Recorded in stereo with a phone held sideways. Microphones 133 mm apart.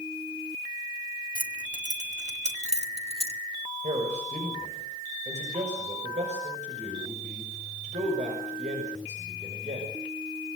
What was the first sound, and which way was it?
Keys jangling, 80° right.